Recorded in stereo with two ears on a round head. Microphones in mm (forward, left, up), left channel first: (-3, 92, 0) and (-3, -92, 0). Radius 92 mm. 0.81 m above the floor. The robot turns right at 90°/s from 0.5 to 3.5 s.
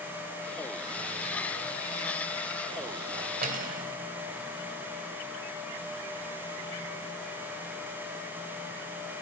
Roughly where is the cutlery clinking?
Right.